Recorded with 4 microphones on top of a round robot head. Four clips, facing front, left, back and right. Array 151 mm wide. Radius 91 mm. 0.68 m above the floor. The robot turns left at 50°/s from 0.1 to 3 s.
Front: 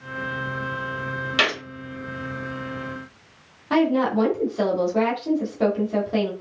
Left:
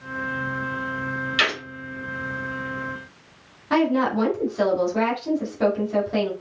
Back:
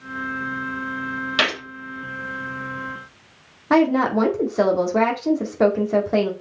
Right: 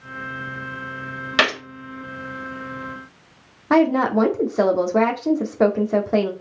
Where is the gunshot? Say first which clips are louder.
Right 6 dB, even; 90° right, 3.5 m; by 1.6 s 100° right, 3.5 m.